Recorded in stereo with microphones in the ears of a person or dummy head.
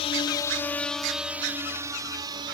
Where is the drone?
35° left (ahead or behind); by 2.5 s 30° right (ahead or behind).